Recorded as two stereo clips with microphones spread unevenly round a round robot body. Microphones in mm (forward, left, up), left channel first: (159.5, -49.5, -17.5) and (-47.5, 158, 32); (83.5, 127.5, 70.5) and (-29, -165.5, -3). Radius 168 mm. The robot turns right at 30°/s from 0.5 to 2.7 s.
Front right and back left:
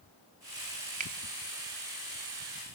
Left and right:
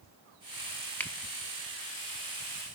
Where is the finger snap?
Straight behind, 0.6 m; by 1.1 s 175° right, 0.6 m.